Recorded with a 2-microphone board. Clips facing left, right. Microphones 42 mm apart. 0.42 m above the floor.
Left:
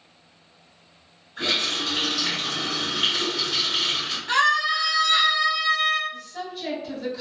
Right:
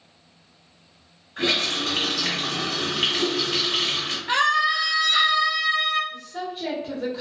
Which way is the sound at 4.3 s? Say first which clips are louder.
Even; 20° right (ahead or behind).